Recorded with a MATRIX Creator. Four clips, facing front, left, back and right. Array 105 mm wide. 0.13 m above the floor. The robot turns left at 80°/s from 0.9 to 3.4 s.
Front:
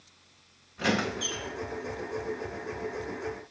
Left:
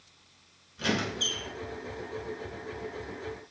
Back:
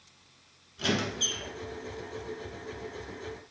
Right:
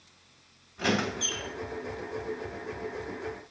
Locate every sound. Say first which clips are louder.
0.8 s a squeak: right 2 dB, front 2 dB; 30° right, 0.9 m; by 1.5 s 75° right, 0.9 m